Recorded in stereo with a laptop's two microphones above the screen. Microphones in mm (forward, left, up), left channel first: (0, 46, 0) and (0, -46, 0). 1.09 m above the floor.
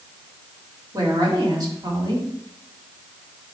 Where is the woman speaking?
45° right (ahead or behind), 2.5 m.